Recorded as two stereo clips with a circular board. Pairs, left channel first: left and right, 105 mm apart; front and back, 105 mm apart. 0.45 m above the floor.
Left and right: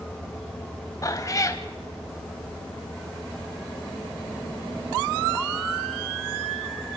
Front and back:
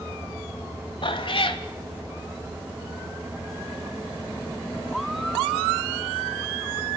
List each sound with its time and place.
1.0 s a cat meowing: 35° left, 1.1 m